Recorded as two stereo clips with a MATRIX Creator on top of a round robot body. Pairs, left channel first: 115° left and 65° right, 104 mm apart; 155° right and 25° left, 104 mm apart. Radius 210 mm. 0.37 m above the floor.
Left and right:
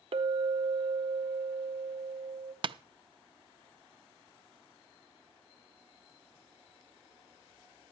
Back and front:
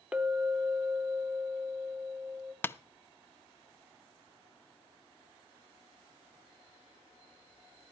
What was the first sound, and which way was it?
A clink, 55° right.